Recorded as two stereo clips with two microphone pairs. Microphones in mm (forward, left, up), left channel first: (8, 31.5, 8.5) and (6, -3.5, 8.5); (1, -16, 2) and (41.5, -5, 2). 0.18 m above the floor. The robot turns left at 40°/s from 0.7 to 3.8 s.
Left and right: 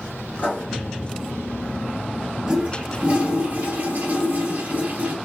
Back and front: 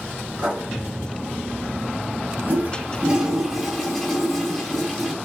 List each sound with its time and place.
0.4 s writing: 60° left, 2.0 m
2.5 s a toilet flushing: 25° right, 0.9 m; by 5.1 s 80° right, 0.9 m